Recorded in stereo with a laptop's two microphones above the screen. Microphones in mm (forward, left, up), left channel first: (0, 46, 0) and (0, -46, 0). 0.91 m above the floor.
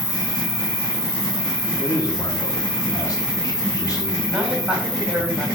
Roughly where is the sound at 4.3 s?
Centre.